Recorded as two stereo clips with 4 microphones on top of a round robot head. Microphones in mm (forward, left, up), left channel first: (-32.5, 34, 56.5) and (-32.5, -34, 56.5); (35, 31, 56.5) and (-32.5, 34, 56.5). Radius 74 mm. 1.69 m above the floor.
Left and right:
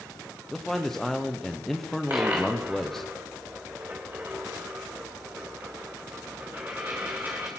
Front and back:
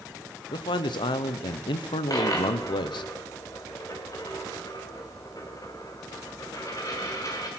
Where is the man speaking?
5° left, 0.9 m.